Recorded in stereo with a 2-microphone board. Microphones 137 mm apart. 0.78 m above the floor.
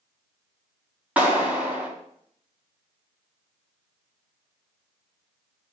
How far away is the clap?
About 4 m.